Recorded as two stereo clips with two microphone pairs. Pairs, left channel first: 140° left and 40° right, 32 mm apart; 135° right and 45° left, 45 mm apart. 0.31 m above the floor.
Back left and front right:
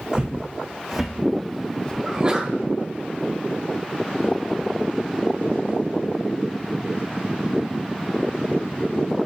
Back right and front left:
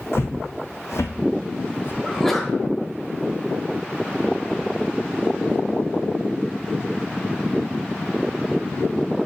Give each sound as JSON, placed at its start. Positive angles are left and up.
{"t": 0.1, "sound": "footsteps", "azimuth_deg": -110, "distance_m": 1.3}
{"t": 2.0, "sound": "a sneeze", "azimuth_deg": -60, "distance_m": 1.1}